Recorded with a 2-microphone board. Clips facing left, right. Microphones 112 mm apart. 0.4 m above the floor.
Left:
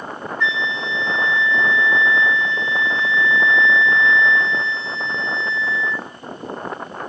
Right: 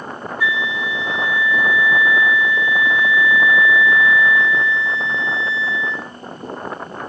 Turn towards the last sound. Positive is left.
turn(degrees=-10)  # may be behind; listen again after turning